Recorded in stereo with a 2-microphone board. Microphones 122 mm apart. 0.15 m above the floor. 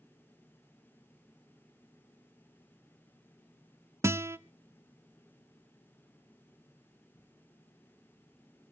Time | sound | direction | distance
4.0 | a guitar | 20° right (ahead or behind) | 0.5 m